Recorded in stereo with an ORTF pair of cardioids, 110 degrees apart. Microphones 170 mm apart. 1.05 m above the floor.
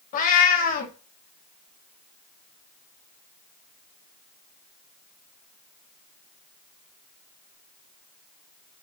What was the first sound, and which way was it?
A cat meowing, 55° left.